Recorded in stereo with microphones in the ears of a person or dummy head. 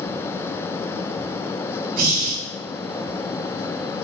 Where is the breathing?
55° right (ahead or behind), 1.1 m.